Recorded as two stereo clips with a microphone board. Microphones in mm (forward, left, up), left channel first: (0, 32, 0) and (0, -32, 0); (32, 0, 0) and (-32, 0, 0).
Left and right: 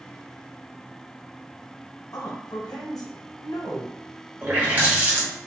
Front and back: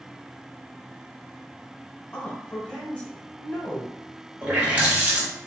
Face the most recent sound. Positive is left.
turn(degrees=-125)